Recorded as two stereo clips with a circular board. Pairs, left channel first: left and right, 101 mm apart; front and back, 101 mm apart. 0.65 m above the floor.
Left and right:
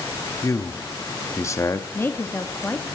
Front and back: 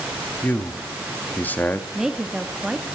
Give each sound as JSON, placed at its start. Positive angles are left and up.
{"t": 0.4, "sound": "a man speaking", "azimuth_deg": 60, "distance_m": 0.9}
{"t": 1.9, "sound": "a woman speaking", "azimuth_deg": 105, "distance_m": 0.9}